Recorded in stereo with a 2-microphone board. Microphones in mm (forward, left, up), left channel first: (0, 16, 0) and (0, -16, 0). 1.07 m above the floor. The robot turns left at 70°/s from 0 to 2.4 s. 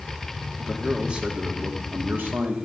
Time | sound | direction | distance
0.6 | a man speaking | 10° left | 2 m